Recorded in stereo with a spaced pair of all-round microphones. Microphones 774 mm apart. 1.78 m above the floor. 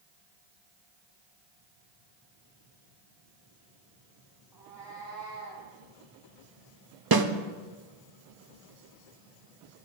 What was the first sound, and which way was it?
A cat meowing, 30° right (ahead or behind).